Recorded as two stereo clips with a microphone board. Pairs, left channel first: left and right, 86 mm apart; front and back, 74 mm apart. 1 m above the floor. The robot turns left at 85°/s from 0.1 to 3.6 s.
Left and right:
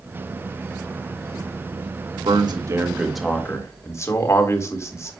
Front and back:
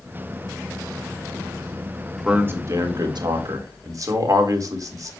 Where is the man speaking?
100° right, 1.7 m; by 5.1 s 145° left, 1.7 m.